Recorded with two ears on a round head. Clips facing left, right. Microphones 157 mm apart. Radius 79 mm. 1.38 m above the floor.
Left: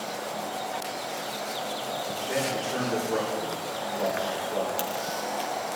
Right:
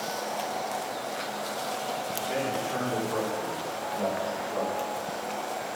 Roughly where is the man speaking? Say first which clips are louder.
Left 1 dB; centre.